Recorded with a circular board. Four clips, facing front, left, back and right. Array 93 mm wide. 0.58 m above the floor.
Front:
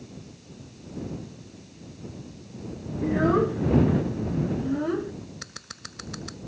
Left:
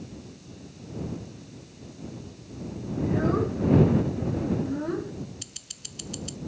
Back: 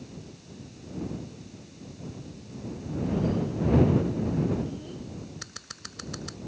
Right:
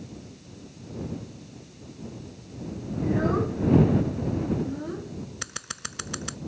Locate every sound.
3.0 s a child speaking: 5° right; by 5.1 s 20° left
5.4 s scissors: 90° right